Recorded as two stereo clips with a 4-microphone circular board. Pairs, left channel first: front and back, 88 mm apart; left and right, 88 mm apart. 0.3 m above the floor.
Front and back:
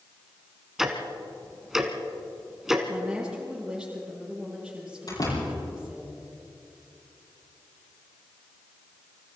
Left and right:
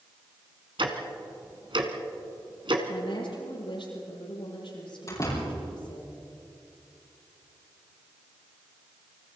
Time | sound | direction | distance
0.8 | ticking | 95° right | 2.0 m
2.9 | a woman speaking | 100° left | 9.5 m
5.1 | a door slam | 40° left | 8.5 m